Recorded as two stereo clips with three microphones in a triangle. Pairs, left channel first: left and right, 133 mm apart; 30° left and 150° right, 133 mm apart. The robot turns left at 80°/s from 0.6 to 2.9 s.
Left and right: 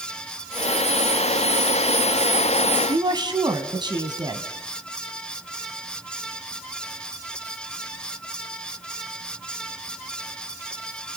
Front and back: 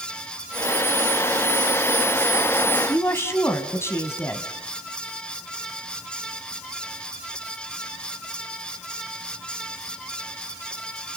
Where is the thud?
No thud in this recording.